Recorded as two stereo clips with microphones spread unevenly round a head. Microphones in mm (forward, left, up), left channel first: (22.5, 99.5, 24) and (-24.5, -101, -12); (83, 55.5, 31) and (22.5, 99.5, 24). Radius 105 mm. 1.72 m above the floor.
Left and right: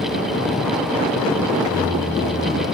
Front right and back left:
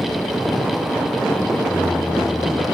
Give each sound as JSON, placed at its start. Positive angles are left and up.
{"t": 1.6, "sound": "singing", "azimuth_deg": -135, "distance_m": 2.5}